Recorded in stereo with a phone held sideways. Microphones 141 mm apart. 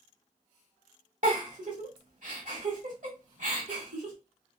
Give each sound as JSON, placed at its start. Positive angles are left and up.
{"t": 1.2, "sound": "a giggle", "side_deg": -65, "distance_m": 1.1}